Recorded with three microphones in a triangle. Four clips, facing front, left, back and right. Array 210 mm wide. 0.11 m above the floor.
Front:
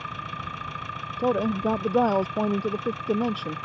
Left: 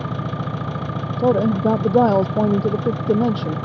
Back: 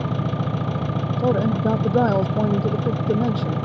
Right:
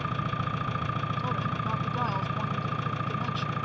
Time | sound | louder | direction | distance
0.0 | an engine running | left 5 dB, back 9 dB | 150° left | ?
1.2 | a woman speaking | left 14 dB, back 3 dB | 100° left | ?